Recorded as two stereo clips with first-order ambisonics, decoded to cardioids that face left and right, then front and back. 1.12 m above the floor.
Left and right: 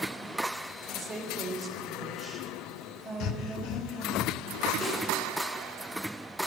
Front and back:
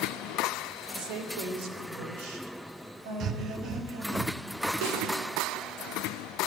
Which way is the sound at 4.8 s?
165° left.